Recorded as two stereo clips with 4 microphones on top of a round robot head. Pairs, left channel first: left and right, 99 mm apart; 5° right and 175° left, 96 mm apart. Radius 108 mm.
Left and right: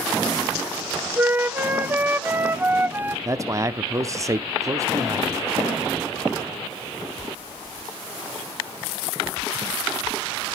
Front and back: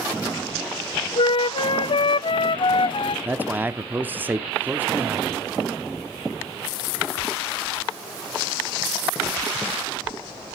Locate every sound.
1.2 s a flute: 20° right, 0.5 m
3.2 s a man speaking: 125° right, 0.8 m